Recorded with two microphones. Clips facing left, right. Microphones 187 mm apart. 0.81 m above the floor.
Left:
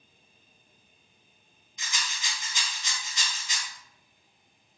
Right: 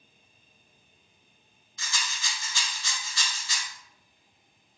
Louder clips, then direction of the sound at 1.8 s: Right 1 dB; 20° left (ahead or behind).